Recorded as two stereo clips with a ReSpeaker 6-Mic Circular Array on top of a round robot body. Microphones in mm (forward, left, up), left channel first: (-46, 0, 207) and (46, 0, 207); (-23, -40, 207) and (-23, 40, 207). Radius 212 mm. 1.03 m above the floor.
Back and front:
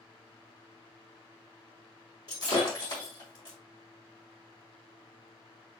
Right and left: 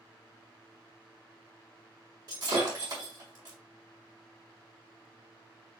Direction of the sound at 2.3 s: 135° left.